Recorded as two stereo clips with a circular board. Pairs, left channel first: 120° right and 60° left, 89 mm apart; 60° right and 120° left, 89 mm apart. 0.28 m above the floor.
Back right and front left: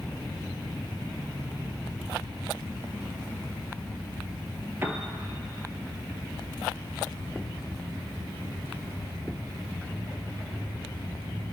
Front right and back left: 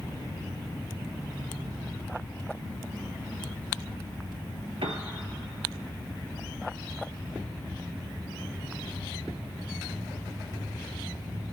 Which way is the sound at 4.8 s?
125° left.